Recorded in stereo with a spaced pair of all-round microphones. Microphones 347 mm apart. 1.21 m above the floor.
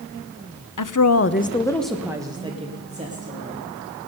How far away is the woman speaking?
About 0.7 m.